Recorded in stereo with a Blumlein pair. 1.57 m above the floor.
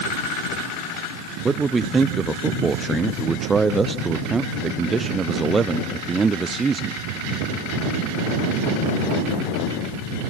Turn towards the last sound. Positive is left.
turn(degrees=-15)